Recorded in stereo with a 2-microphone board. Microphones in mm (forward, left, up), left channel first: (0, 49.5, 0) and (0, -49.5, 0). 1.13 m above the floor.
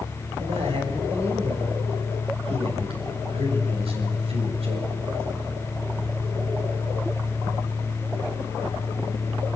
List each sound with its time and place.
0.4 s a man speaking: 65° right (ahead or behind), 6.5 m